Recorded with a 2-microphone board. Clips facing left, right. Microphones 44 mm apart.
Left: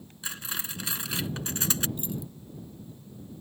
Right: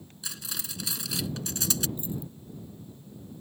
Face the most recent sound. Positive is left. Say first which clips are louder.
# even
turn(degrees=70)  # may be behind; listen again after turning